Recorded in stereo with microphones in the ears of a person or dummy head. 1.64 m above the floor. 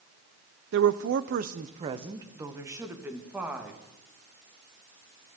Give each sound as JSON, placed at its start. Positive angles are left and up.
{"t": 0.7, "sound": "a woman speaking", "side_deg": -70, "distance_m": 0.6}